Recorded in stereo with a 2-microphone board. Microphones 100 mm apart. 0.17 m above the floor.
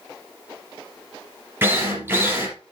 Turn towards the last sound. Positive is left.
turn(degrees=-20)  # may be behind; listen again after turning